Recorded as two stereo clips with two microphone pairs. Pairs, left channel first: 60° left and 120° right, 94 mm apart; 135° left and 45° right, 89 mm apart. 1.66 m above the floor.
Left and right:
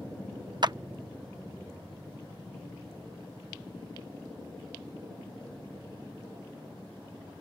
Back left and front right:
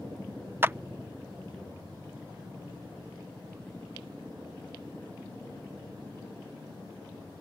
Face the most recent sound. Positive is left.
turn(degrees=-105)